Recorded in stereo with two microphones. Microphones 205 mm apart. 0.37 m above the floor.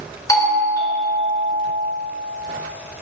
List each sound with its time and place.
0.3 s a doorbell: 15° left (ahead or behind), 1.2 m